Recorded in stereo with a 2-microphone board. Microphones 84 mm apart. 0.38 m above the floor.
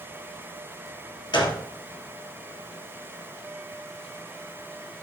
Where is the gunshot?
60° left (ahead or behind), 3.5 m.